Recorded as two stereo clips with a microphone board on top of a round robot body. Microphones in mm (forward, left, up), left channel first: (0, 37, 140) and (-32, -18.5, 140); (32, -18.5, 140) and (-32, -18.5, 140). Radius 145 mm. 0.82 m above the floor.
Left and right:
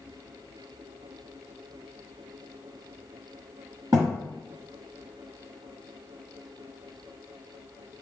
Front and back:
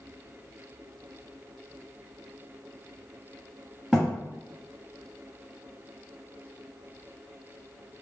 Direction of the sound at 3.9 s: 105° right.